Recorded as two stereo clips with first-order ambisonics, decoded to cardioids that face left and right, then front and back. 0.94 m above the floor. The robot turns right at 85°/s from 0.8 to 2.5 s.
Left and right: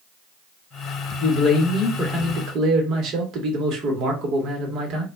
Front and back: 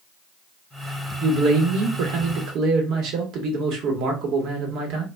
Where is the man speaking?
110° left, 1.0 m; by 5.0 s 140° right, 1.0 m.